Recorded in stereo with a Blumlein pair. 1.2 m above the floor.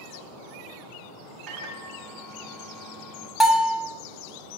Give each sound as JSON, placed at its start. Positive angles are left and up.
{"t": 1.5, "sound": "a microwave", "azimuth_deg": -35, "distance_m": 0.8}
{"t": 3.4, "sound": "a bell", "azimuth_deg": 0, "distance_m": 0.6}